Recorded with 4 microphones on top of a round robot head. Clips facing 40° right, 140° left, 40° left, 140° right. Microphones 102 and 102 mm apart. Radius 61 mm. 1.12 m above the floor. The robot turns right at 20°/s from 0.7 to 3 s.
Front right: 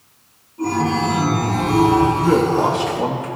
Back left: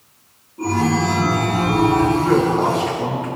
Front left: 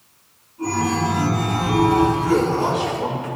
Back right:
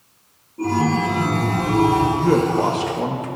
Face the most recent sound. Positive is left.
turn(degrees=-100)